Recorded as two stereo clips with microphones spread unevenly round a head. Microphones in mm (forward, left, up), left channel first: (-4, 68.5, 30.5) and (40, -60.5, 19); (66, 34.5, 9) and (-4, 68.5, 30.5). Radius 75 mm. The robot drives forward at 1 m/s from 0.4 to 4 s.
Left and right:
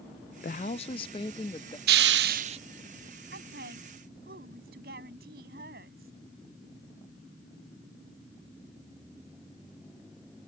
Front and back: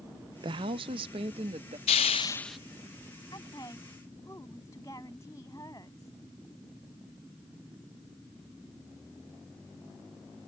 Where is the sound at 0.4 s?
145° left; by 1.8 s 170° left.